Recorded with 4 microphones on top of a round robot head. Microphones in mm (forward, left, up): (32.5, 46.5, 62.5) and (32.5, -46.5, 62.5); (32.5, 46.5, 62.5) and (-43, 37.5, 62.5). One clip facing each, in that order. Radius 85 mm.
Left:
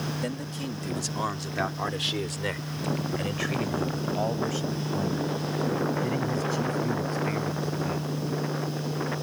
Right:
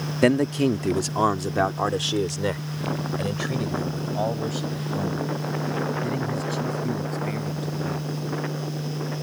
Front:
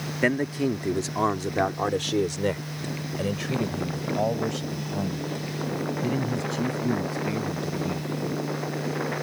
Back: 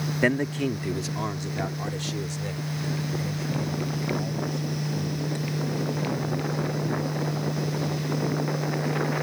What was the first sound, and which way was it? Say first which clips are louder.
A man speaking: right 13 dB, front 1 dB; 85° right.